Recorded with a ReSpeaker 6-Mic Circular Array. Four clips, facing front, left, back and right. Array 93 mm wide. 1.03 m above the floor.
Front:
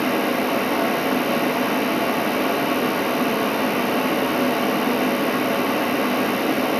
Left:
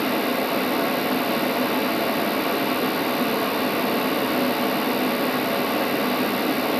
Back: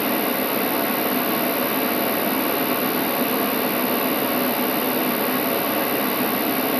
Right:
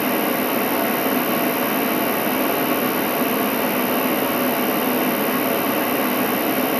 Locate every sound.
0.0 s an insect: 10° right